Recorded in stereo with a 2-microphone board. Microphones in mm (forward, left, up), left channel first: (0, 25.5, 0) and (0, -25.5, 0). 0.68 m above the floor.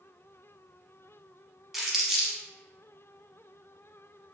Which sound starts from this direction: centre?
Crumpling, at 1.7 s.